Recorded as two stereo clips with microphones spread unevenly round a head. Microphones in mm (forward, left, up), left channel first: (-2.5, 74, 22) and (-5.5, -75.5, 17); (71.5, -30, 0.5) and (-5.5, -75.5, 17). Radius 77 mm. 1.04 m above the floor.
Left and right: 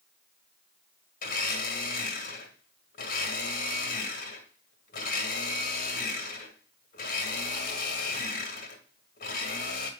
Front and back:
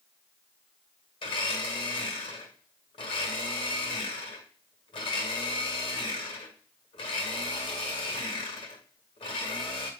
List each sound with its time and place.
1.2 s a blender: 55° left, 1.8 m